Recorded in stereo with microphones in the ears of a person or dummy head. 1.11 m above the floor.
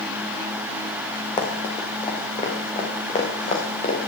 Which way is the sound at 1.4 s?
15° left (ahead or behind).